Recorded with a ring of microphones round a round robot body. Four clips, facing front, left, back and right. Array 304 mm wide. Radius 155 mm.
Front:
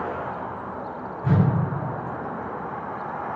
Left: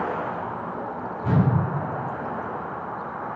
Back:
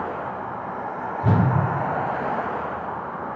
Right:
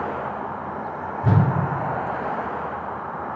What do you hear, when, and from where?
1.2 s a whoosh: 145° right, 0.9 m